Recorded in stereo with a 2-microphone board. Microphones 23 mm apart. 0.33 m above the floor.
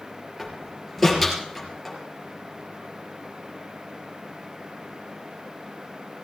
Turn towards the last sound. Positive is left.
turn(degrees=5)  # may be behind; listen again after turning